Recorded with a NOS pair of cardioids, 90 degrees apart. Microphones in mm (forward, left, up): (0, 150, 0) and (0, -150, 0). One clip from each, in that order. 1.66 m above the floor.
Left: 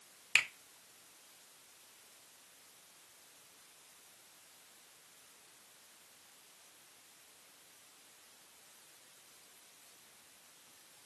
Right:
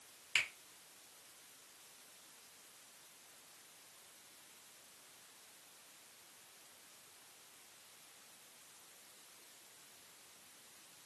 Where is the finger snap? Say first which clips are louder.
Left 5 dB; 40° left, 0.6 m.